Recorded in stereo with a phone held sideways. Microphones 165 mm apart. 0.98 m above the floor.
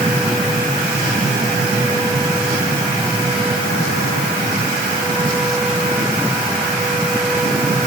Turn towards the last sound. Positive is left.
No sound to turn to.